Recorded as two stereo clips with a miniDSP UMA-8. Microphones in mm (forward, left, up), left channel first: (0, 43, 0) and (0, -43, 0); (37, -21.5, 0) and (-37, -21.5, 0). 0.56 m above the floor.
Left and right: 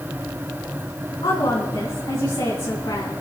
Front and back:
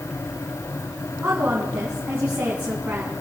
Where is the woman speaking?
115° left, 4.5 m.